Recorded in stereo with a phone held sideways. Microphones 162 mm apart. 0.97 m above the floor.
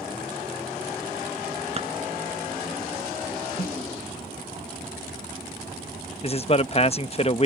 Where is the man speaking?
35° left (ahead or behind).